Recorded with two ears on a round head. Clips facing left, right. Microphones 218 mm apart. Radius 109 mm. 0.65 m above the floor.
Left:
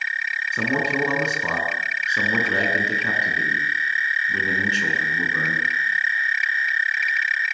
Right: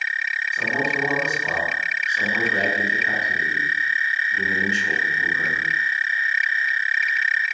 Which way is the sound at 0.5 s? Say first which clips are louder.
Left 3 dB; 55° left (ahead or behind).